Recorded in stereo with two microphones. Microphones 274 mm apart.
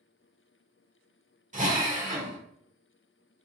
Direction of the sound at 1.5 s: 30° right (ahead or behind).